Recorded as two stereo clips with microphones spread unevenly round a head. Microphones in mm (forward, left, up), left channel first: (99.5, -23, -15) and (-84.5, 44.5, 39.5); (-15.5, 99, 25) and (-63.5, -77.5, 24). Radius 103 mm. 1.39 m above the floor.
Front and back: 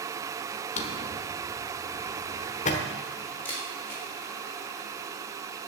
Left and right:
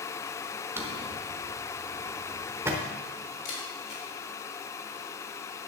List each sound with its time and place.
0.8 s a drawer: 55° right, 1.1 m
3.5 s a camera shutter: 65° left, 3.5 m